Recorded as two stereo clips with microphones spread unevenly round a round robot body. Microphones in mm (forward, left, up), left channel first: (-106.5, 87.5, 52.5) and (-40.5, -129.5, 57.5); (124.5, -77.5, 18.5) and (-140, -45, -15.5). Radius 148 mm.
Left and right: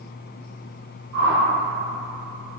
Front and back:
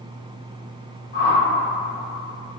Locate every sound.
1.1 s a whoosh: 50° right, 1.1 m